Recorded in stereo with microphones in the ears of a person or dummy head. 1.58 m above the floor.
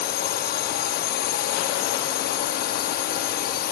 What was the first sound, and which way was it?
A drone, 45° left (ahead or behind).